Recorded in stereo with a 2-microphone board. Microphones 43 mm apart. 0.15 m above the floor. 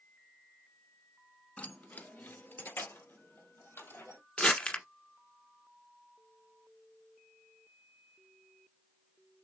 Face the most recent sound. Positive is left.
turn(degrees=30)  # may be behind; listen again after turning